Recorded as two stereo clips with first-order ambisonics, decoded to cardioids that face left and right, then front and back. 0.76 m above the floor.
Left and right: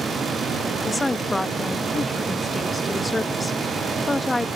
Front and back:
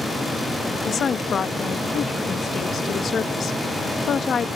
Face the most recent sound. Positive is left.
turn(degrees=25)